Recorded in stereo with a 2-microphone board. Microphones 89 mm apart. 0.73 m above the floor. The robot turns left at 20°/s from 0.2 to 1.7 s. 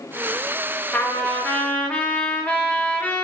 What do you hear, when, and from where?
0.9 s a trumpet: 20° left (ahead or behind), 0.6 m